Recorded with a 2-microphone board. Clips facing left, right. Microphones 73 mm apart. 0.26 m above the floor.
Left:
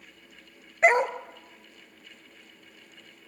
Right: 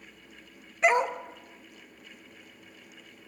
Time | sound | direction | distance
0.8 | a dog barking | 45° left (ahead or behind) | 1.1 m